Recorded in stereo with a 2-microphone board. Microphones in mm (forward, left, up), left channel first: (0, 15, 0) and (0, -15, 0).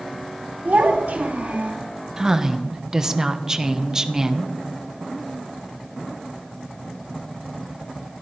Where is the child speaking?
65° right (ahead or behind), 3 m.